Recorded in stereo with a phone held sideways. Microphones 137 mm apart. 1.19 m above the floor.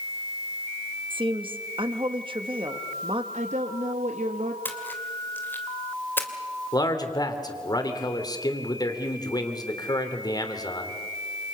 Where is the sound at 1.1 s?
40° right (ahead or behind), 2 m.